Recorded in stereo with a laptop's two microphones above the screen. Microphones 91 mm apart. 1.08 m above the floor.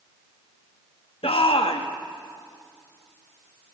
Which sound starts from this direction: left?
A shout, at 1.2 s.